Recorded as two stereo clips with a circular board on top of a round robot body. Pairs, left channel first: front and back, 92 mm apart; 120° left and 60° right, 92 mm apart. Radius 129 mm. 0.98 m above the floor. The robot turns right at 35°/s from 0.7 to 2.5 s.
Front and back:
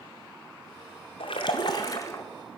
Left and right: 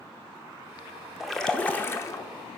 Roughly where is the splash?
Ahead left.